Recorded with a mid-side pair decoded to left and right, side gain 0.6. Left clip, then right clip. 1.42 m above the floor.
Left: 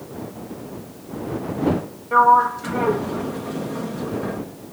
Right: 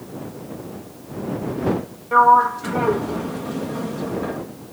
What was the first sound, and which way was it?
A sliding door, 5° right.